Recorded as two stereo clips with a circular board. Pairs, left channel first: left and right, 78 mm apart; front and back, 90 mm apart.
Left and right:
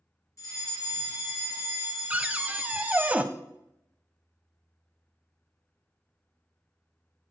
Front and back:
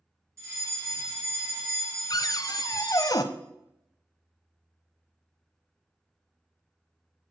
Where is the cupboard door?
25° right, 0.5 m.